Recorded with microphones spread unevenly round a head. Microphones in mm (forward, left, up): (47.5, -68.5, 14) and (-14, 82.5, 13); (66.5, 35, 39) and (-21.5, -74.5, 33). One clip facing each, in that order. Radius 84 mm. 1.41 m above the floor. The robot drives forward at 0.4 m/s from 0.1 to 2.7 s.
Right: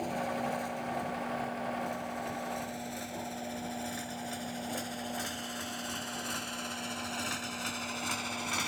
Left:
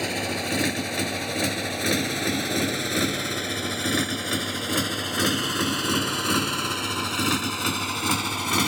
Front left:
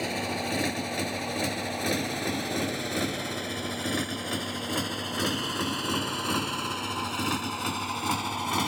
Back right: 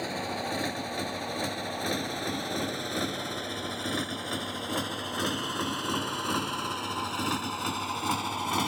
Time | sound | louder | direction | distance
0.0 | a motorcycle | left 5 dB, front left 2 dB | 130° left | ?